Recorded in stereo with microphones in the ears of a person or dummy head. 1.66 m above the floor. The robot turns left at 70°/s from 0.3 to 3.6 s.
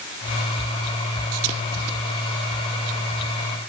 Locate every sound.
Only background noise.